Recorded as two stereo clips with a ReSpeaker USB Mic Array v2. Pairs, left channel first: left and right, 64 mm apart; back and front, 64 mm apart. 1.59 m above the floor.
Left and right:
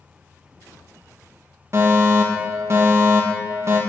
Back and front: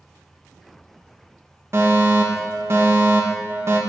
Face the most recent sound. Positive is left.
turn(degrees=-45)